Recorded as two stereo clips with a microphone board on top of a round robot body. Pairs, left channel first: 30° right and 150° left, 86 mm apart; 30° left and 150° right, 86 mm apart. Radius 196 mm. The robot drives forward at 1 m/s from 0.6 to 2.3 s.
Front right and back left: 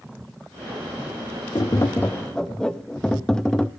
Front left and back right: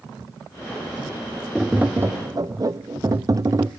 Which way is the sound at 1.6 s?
65° right.